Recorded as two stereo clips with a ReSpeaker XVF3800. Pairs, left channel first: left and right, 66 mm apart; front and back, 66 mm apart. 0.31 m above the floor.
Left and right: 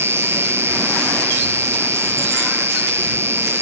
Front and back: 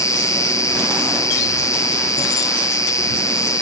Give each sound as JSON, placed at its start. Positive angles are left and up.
{"t": 0.0, "sound": "an insect", "azimuth_deg": -35}